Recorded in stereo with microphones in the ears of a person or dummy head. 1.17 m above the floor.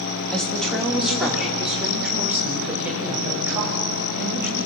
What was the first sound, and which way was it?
A woman speaking, 5° left (ahead or behind).